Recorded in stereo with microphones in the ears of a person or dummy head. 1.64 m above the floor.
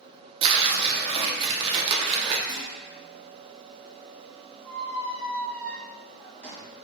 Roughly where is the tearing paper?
Right.